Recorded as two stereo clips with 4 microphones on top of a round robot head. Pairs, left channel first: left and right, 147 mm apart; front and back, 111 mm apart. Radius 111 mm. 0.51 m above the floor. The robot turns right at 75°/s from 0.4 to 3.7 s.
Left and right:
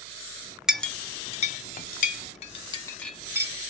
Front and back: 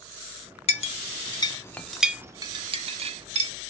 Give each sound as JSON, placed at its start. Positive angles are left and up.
{"t": 0.7, "sound": "a clink", "azimuth_deg": -5, "distance_m": 0.7}